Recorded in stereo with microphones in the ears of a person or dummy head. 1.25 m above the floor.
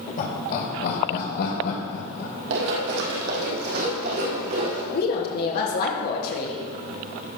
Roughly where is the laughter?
Left.